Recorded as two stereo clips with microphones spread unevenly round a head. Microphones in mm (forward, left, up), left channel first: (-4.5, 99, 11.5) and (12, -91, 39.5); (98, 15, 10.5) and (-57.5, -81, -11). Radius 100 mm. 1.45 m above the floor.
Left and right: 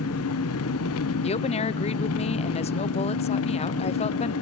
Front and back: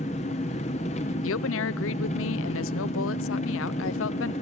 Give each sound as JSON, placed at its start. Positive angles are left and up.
{"t": 0.0, "sound": "an engine running", "azimuth_deg": 90, "distance_m": 0.9}
{"t": 1.2, "sound": "a woman speaking", "azimuth_deg": 45, "distance_m": 0.5}